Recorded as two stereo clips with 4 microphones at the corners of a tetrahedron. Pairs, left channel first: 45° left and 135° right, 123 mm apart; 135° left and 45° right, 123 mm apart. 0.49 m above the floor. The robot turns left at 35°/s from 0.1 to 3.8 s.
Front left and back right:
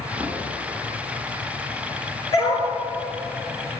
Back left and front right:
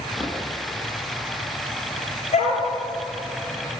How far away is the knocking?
About 4.5 m.